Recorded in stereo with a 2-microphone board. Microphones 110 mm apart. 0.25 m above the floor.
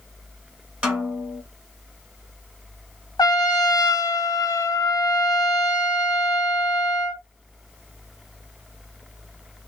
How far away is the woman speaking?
No woman speaking in this recording.